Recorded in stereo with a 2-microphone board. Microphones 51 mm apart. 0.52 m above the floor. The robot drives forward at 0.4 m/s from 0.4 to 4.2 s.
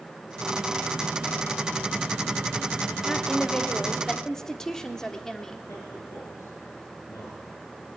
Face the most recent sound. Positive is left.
turn(degrees=65)  # may be behind; listen again after turning